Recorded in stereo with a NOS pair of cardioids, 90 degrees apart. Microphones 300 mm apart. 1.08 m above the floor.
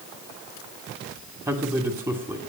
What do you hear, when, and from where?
1.5 s a man speaking: 15° right, 2.5 m